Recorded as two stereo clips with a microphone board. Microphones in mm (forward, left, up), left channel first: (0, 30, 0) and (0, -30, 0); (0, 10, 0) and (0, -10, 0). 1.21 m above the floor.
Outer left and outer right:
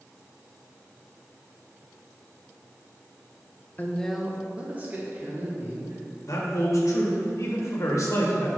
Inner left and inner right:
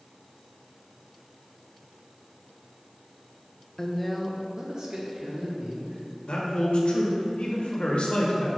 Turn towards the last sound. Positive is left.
turn(degrees=60)  # may be behind; listen again after turning